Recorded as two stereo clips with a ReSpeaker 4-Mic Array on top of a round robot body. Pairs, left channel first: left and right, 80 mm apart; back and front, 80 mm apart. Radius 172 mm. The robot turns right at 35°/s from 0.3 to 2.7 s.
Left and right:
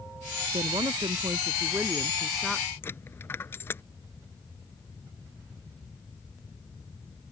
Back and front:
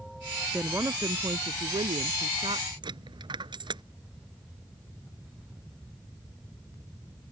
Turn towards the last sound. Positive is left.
turn(degrees=25)